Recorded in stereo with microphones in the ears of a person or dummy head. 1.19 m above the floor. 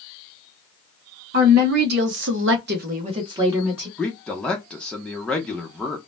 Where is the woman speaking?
45° right (ahead or behind), 1.0 m; by 3.9 s 10° right (ahead or behind), 0.9 m.